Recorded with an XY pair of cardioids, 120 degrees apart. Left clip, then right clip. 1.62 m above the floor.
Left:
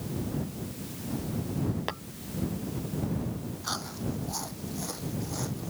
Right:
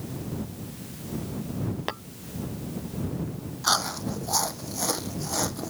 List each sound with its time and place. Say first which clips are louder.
1.9 s tapping: right 5 dB; 15° right
3.6 s chewing: right 10 dB; 55° right